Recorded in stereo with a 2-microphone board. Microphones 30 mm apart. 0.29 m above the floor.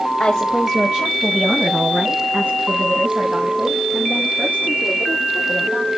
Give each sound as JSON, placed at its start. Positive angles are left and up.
{"t": 0.2, "sound": "a woman speaking", "side_deg": 15, "distance_m": 1.3}